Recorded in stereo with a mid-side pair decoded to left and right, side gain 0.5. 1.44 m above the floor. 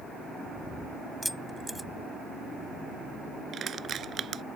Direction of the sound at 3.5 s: 45° right.